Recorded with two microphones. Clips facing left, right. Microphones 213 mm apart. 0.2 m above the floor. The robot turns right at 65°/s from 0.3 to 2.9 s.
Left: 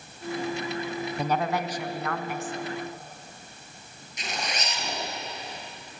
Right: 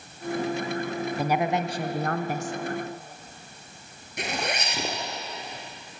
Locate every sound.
1.2 s a woman speaking: 175° right, 1.6 m; by 2.5 s 85° right, 1.6 m
4.2 s a zipper: 60° right (ahead or behind), 4.5 m